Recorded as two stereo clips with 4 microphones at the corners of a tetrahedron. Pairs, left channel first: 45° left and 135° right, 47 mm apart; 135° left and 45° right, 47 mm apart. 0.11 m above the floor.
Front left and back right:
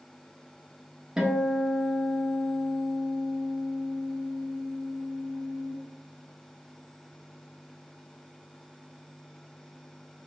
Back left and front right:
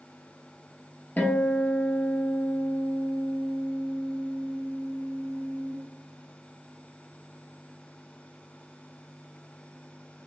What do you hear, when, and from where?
1.2 s a guitar: 150° left, 0.9 m